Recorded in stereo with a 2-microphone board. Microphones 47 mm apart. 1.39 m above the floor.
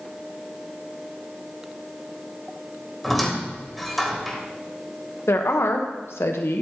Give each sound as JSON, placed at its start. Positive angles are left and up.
{"t": 3.0, "sound": "a squeak", "side_deg": 0, "distance_m": 1.6}
{"t": 5.3, "sound": "a woman speaking", "side_deg": 70, "distance_m": 1.0}